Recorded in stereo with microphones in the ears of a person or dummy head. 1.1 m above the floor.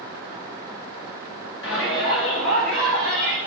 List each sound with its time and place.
1.6 s a shout: 80° left, 2 m; by 3.4 s 70° left (ahead or behind), 3.5 m